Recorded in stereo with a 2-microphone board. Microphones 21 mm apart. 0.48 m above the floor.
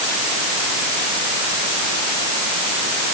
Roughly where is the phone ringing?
No phone ringing in this recording.